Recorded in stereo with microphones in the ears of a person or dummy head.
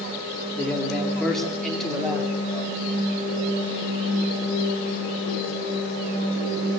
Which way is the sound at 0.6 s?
Centre (ahead or behind).